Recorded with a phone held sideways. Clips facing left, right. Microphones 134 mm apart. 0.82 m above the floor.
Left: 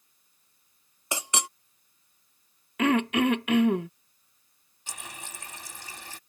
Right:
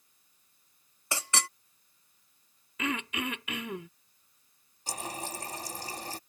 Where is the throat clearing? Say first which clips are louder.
Left 11 dB; 60° left (ahead or behind).